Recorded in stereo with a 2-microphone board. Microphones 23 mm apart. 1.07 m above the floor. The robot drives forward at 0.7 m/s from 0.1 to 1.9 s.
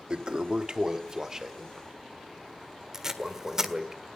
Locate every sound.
0.1 s a toilet flushing: 40° right (ahead or behind), 0.6 m; by 3.9 s 15° right (ahead or behind), 1.5 m
2.9 s tape being pulled: 20° right (ahead or behind), 1.6 m